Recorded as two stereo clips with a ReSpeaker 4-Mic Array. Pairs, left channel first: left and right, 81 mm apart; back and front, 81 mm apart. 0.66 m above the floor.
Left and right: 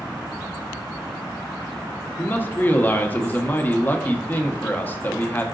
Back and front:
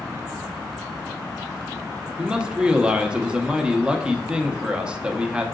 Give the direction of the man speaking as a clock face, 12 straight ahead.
10 o'clock.